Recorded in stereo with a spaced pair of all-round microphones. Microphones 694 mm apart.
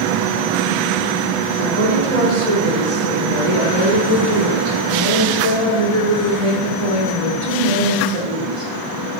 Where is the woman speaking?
60° right (ahead or behind), 5 m.